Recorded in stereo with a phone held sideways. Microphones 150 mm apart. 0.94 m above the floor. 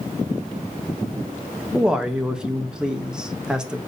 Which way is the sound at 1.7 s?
5° right (ahead or behind).